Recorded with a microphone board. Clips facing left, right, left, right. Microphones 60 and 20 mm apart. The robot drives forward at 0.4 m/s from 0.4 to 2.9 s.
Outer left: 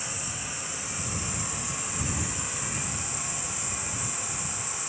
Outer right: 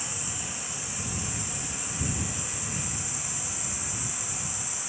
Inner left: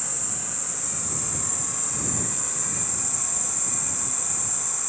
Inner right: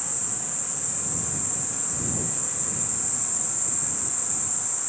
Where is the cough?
I don't hear a cough.